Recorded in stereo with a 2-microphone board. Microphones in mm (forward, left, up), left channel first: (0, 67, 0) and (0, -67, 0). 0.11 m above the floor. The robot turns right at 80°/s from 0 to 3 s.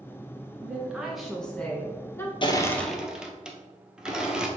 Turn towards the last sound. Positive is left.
turn(degrees=-5)  # may be behind; listen again after turning